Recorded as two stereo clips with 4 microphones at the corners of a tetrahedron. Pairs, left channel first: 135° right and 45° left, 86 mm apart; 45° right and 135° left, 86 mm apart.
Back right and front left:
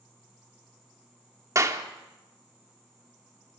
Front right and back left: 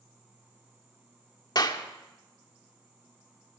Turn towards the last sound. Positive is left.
turn(degrees=-5)